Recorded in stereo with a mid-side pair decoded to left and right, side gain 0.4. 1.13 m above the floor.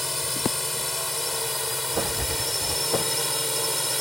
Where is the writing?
15° right.